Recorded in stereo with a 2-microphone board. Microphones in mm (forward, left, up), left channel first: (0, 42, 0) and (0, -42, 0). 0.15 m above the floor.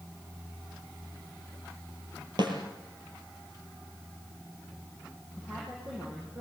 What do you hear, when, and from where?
2.4 s a snare drum: 60° right (ahead or behind), 4 m
5.3 s a woman speaking: 25° right (ahead or behind), 6 m